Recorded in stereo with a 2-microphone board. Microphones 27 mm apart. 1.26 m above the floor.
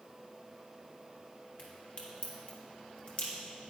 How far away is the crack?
About 1.9 m.